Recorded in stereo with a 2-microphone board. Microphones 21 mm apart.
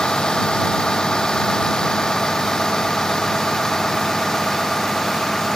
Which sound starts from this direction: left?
A vehicle, at 0.0 s.